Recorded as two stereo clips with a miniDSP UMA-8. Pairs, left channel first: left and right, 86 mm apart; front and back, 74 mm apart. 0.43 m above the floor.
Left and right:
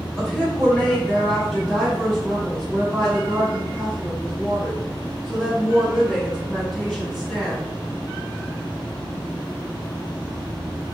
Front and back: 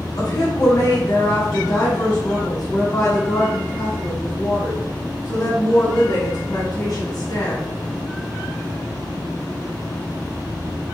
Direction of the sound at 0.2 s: 10° left.